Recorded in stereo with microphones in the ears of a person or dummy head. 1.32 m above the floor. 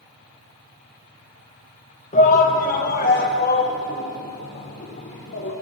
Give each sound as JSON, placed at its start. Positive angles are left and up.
{"t": 2.1, "sound": "a shout", "side_deg": 40, "distance_m": 1.1}